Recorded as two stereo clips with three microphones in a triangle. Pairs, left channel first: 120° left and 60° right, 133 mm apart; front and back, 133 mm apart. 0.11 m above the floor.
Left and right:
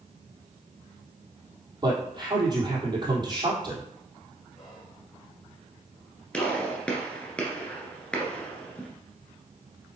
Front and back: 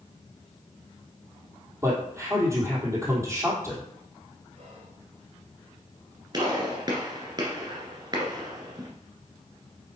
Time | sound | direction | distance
1.8 | a man speaking | 115° right | 3 m
4.5 | whispering | 155° right | 3 m
6.3 | a gunshot | 165° right | 1.8 m